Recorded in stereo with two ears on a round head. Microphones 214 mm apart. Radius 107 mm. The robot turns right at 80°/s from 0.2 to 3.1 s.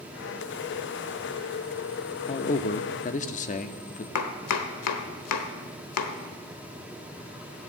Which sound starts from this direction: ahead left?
A man speaking, at 2.3 s.